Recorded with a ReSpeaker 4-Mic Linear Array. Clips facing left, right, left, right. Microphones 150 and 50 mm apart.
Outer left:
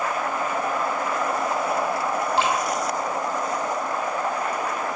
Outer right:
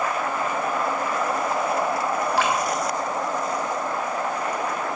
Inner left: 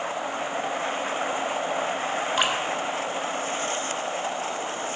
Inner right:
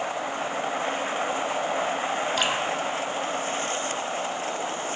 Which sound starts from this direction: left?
Dripping, at 2.4 s.